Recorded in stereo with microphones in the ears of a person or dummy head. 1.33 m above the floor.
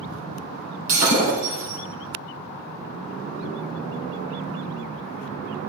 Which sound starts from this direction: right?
Breaking glass, at 0.9 s.